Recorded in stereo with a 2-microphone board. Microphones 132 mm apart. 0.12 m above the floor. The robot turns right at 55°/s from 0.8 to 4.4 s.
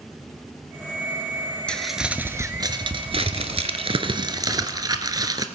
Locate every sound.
1.7 s crumpling: 170° left, 0.9 m; by 5.5 s 40° right, 0.9 m